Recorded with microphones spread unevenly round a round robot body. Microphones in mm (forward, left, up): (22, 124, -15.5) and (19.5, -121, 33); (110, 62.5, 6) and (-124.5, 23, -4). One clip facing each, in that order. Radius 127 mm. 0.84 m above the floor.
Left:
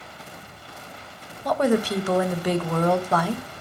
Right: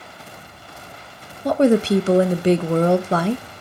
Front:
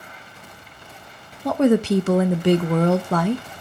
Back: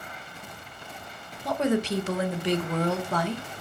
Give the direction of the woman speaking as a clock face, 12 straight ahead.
1 o'clock.